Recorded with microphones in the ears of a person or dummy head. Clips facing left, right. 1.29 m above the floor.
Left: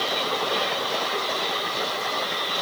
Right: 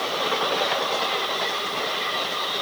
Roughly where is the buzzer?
I don't hear a buzzer.